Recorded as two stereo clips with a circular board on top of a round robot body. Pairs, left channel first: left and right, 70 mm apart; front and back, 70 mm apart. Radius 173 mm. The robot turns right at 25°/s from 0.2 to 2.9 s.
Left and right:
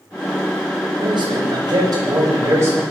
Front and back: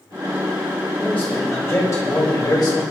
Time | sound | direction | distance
1.0 | a man speaking | 75° right | 5 m